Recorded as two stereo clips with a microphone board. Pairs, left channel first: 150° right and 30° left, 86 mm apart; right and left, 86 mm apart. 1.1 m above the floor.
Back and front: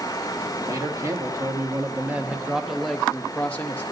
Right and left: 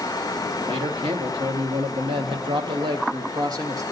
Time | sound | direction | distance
0.7 | a man speaking | 80° left | 1.8 m